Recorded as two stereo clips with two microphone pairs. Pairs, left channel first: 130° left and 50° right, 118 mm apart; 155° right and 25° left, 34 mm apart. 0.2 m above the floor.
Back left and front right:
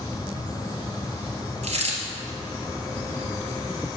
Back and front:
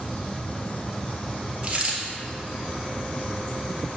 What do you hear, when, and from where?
1.6 s a dropped coin: 30° right, 1.8 m